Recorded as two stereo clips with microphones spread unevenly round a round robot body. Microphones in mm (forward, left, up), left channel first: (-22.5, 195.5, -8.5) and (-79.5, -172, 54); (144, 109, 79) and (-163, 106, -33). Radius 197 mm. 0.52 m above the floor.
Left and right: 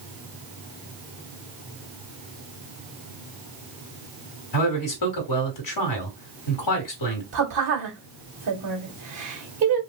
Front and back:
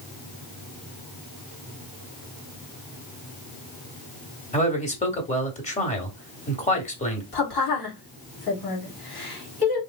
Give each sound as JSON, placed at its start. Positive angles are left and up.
{"t": 4.5, "sound": "a man speaking", "azimuth_deg": 80, "distance_m": 1.4}
{"t": 7.3, "sound": "a woman speaking", "azimuth_deg": -25, "distance_m": 2.0}